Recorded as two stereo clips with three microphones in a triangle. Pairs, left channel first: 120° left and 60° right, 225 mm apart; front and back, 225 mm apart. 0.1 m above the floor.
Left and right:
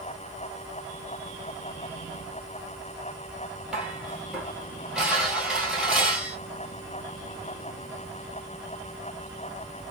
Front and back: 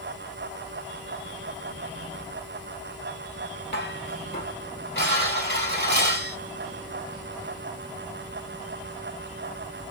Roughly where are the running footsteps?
I don't hear running footsteps.